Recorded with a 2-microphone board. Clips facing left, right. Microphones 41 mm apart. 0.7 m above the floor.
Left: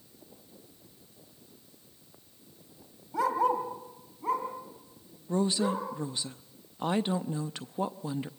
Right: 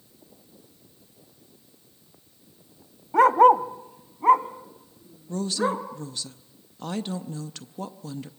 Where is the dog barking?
55° right (ahead or behind), 0.9 m; by 5.8 s 40° right (ahead or behind), 3 m.